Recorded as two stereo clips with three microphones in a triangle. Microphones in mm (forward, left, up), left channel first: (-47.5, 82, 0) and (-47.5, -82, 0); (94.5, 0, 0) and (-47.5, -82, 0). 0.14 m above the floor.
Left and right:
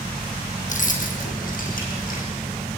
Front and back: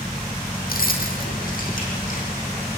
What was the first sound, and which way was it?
Keys jangling, 55° left.